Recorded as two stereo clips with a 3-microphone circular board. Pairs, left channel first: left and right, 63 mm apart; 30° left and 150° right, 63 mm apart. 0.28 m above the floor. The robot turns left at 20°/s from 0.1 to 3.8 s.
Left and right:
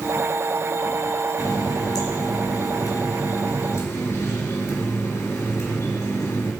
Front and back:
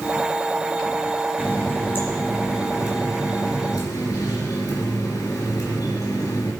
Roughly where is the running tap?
Left.